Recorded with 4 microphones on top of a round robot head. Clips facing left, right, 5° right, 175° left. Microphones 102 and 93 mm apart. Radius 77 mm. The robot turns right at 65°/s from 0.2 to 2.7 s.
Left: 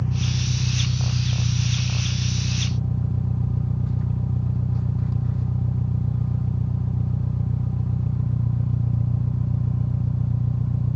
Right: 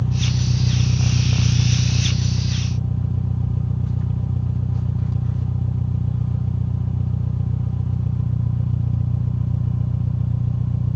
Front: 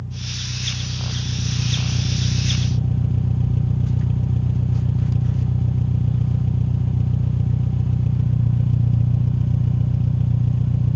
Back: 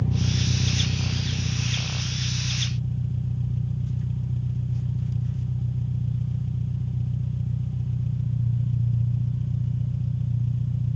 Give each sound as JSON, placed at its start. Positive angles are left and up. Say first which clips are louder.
{"t": 0.0, "sound": "an engine running", "louder": "right 3 dB, back 7 dB", "azimuth_deg": -165, "distance_m": 0.8}